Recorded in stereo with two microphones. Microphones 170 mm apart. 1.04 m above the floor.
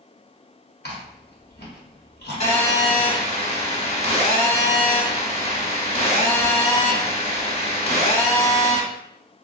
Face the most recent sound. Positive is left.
turn(degrees=45)  # may be behind; listen again after turning